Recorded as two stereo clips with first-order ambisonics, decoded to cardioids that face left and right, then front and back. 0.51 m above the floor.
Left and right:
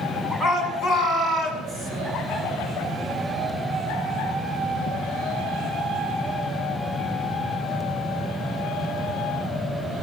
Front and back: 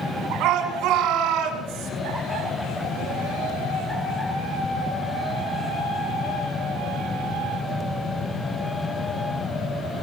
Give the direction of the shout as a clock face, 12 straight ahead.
7 o'clock.